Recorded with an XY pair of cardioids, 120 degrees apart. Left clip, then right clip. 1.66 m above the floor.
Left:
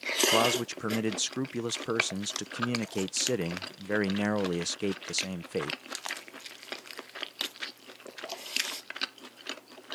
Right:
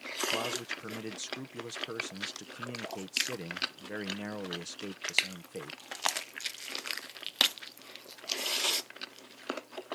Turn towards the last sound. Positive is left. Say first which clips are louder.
# left 8 dB
turn(degrees=55)